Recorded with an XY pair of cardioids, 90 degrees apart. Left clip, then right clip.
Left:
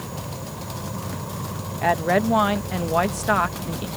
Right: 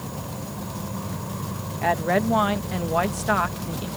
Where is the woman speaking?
15° left.